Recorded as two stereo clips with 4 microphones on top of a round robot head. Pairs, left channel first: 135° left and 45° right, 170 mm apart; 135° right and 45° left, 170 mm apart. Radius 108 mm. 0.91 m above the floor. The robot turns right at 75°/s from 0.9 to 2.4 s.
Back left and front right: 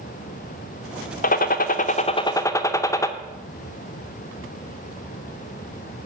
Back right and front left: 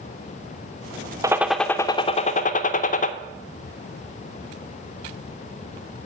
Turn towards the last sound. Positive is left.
turn(degrees=-160)